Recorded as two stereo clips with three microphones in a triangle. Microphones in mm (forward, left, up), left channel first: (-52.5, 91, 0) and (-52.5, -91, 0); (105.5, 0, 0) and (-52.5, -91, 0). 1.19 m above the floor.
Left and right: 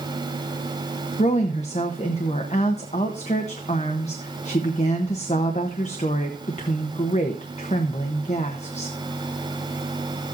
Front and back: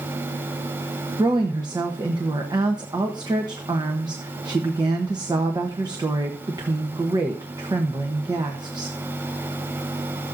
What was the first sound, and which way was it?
A woman speaking, 145° left.